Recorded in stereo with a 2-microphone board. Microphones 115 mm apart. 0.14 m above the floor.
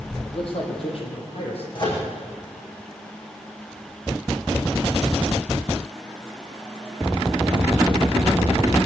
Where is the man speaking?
50° left (ahead or behind), 5.5 m; by 1.6 s 60° left (ahead or behind), 6 m.